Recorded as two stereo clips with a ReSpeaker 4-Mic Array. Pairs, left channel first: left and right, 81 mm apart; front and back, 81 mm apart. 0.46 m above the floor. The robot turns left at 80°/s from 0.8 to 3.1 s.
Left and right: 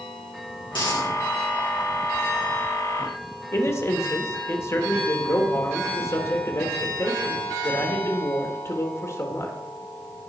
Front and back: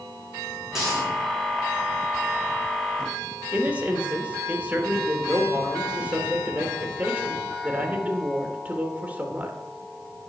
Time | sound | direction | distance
0.7 | a dropped coin | 95° left | 6 m
3.5 | a man speaking | 115° left | 1.6 m